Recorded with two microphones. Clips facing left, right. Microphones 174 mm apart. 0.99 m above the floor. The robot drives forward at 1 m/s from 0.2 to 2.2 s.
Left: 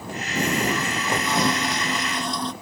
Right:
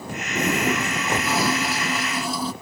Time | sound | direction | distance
0.3 | a toilet flushing | 5° right (ahead or behind) | ?